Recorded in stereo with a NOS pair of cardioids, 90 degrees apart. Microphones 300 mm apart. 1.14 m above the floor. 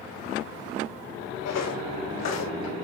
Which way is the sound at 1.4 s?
65° left.